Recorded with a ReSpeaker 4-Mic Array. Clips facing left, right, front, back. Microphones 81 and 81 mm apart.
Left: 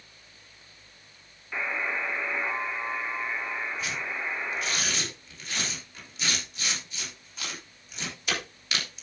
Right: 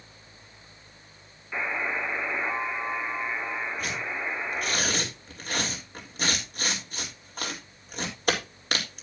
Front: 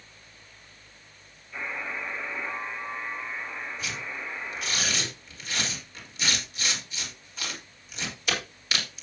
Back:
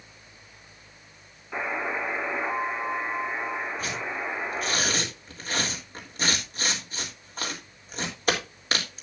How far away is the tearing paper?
About 3.5 m.